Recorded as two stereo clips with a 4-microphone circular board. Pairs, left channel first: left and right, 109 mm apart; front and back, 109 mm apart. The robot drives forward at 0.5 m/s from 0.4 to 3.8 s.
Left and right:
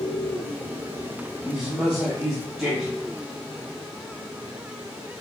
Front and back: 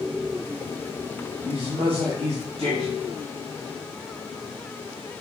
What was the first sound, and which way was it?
A man speaking, 175° right.